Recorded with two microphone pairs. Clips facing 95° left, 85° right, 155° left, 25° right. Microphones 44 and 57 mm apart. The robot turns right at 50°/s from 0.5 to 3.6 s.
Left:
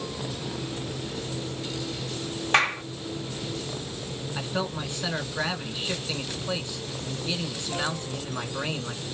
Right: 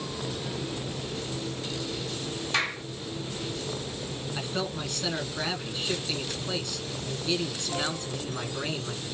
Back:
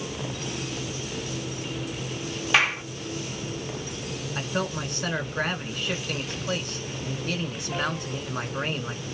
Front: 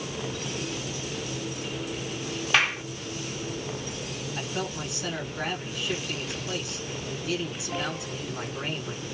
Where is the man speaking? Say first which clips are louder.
Left 2 dB, back 4 dB; 155° left, 2 m.